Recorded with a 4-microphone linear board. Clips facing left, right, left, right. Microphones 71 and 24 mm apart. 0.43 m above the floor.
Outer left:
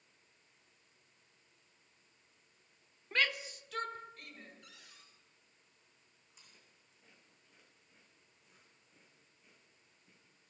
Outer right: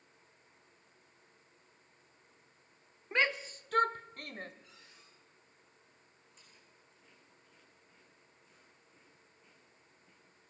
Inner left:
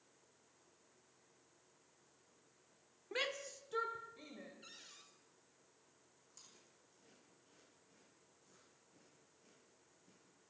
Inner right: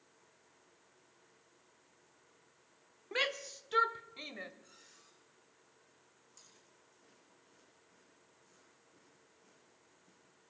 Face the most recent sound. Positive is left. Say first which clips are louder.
# outer right 1 dB, even
turn(degrees=5)  # may be behind; listen again after turning